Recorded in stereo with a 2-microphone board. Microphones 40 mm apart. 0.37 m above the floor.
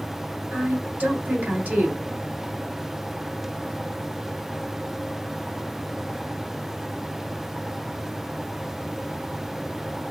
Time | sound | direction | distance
0.5 | a woman speaking | 40° right (ahead or behind) | 1.7 m